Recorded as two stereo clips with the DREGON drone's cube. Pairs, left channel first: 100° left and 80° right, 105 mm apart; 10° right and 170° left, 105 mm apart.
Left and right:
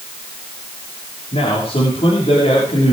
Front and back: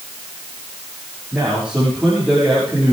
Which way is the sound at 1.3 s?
85° left.